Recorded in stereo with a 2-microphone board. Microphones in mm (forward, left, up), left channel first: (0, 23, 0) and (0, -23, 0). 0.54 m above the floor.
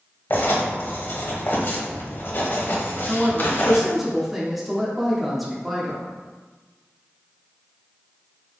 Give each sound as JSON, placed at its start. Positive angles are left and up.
{"t": 0.3, "sound": "writing", "side_deg": 45, "distance_m": 1.0}
{"t": 3.1, "sound": "a woman speaking", "side_deg": -5, "distance_m": 0.9}